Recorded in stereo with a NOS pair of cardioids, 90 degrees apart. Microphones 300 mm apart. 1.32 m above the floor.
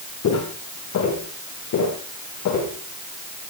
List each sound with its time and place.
0.2 s footsteps: 60° left, 6 m; by 2.7 s 70° left, 6 m